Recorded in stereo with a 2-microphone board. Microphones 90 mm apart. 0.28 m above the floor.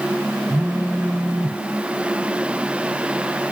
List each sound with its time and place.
0.5 s a phone buzzing: 65° right (ahead or behind), 3.5 m